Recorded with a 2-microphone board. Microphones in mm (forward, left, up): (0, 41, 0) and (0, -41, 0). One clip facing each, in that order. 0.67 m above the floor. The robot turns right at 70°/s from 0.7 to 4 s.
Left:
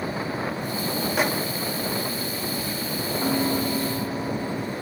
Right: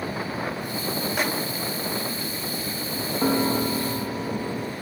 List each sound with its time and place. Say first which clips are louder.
1.2 s a microwave: left 3 dB; 5° left (ahead or behind), 0.8 m; by 1.3 s 10° left (ahead or behind), 0.8 m
3.2 s a piano: right 2 dB; 75° right, 0.9 m; by 4.7 s 20° right, 0.9 m